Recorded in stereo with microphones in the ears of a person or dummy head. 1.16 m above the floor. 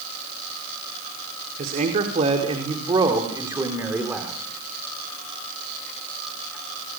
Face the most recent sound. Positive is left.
turn(degrees=-10)  # may be behind; listen again after turning